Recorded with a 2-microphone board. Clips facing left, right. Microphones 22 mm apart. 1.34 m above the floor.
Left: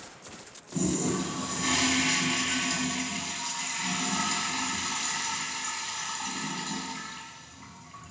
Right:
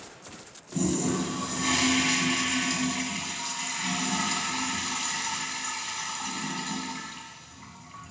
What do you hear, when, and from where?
0.7 s a toilet flushing: 5° right (ahead or behind), 1.7 m